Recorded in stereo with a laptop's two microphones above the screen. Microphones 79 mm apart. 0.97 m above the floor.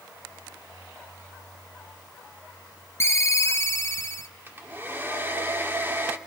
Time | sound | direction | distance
3.0 | a ringtone | 35° left (ahead or behind) | 1.1 m
4.5 | a hair dryer | 30° right (ahead or behind) | 2.5 m